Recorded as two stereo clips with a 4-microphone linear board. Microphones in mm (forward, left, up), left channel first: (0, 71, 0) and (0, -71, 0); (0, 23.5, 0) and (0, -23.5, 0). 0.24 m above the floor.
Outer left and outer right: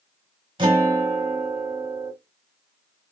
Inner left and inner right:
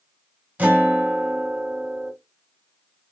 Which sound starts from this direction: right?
A guitar, at 0.6 s.